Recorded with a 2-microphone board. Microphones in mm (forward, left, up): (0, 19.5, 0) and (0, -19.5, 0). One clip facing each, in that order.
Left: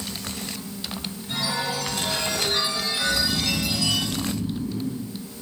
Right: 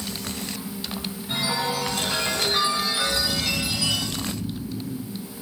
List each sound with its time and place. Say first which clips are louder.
1.3 s a chime: right 1 dB; 15° right (ahead or behind), 8.5 m
3.0 s snoring: left 1 dB; 35° left (ahead or behind), 2 m